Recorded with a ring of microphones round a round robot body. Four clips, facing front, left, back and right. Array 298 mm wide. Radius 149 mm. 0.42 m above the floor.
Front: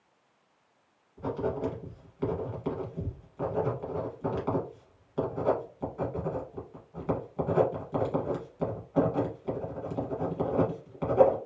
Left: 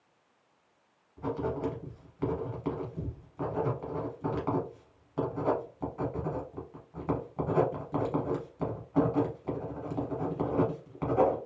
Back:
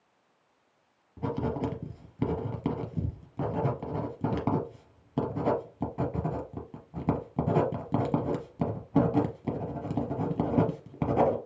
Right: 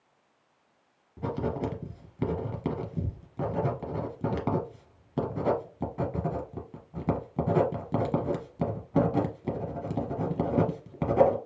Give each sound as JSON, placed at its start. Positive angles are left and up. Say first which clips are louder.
{"t": 1.2, "sound": "writing", "louder": "right 1 dB, even", "azimuth_deg": -145, "distance_m": 1.1}